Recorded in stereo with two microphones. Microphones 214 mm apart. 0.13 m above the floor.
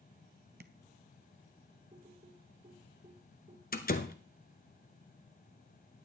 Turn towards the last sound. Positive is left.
turn(degrees=40)  # may be behind; listen again after turning